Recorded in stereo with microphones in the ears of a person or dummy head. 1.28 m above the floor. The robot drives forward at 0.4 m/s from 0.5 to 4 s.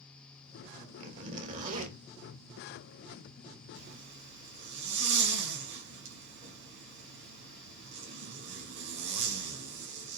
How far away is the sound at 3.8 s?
About 5.5 m.